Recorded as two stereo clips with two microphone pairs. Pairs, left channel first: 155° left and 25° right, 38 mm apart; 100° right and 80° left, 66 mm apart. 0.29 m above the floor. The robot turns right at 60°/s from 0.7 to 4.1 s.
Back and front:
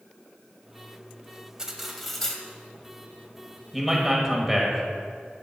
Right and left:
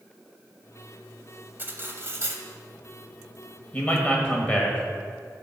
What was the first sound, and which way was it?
Cutlery clinking, 45° left.